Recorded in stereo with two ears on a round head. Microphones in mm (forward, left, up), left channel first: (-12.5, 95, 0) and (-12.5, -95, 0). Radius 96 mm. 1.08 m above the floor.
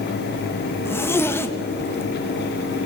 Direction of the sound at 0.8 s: 10° left (ahead or behind).